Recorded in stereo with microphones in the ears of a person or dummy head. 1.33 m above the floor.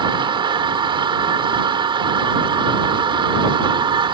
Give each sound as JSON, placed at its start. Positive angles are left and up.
{"t": 0.0, "sound": "a machine running", "side_deg": -25}